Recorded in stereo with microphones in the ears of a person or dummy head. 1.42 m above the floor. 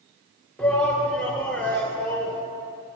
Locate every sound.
0.6 s a shout: 5° left (ahead or behind), 0.7 m